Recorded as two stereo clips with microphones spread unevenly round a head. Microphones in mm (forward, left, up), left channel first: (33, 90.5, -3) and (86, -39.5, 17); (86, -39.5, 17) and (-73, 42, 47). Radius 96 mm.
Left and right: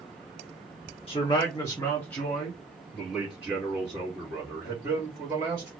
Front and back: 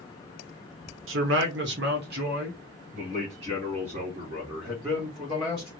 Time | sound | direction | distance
1.1 | a man speaking | 165° left | 1.1 m